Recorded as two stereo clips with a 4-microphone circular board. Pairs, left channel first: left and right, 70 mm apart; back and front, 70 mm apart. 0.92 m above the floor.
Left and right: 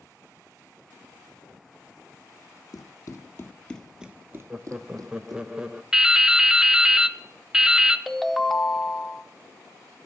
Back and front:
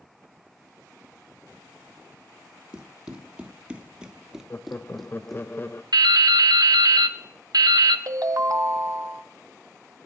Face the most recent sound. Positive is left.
turn(degrees=5)